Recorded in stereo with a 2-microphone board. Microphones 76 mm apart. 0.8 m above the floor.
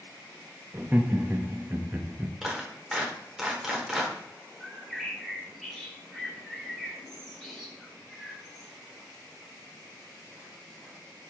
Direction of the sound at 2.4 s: 5° right (ahead or behind).